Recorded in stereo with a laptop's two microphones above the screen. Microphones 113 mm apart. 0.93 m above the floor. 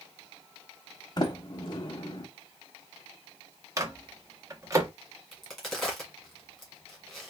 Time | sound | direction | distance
1.2 | a sliding door | 40° left (ahead or behind) | 0.9 m
3.8 | a microwave | 25° right (ahead or behind) | 0.8 m
5.3 | a crack | centre (ahead or behind) | 1.4 m